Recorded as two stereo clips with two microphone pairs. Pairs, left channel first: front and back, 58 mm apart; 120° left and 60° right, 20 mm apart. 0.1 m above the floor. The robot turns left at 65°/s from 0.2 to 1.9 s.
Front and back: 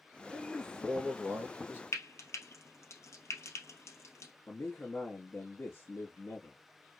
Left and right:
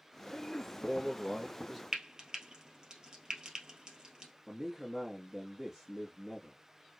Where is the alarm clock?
No alarm clock in this recording.